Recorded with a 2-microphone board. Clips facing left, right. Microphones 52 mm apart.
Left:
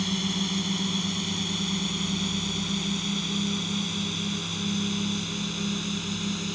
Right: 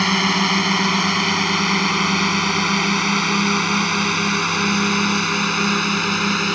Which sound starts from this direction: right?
A drone, at 0.0 s.